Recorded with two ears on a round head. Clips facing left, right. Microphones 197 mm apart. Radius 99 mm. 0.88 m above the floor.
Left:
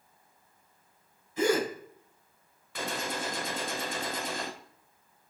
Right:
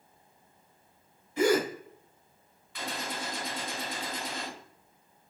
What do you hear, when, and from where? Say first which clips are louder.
1.4 s a gasp: right 2 dB; 50° right (ahead or behind), 1.9 m
2.8 s a gunshot: left 3 dB; 40° left (ahead or behind), 0.6 m